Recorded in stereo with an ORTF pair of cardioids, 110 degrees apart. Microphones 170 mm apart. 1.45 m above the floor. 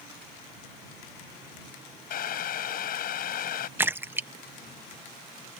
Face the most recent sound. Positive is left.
turn(degrees=-10)